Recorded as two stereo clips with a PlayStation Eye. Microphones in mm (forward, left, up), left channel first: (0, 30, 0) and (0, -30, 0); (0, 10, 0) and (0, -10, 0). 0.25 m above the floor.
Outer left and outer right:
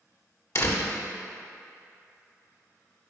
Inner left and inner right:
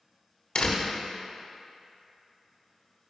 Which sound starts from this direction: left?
A door slam, at 0.6 s.